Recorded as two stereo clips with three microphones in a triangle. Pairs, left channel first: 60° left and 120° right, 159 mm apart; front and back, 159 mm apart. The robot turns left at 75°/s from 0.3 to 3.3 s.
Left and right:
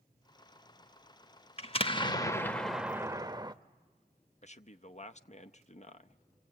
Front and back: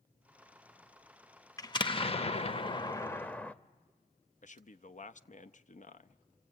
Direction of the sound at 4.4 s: 25° left.